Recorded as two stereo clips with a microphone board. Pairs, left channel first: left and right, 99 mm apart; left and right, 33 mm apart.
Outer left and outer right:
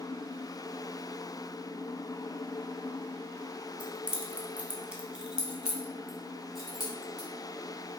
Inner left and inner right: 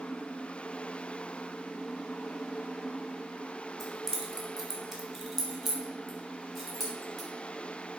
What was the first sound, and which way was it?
Keys jangling, 10° right (ahead or behind).